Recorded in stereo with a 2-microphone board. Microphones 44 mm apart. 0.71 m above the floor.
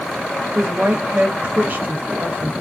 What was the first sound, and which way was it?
A woman speaking, 50° right (ahead or behind).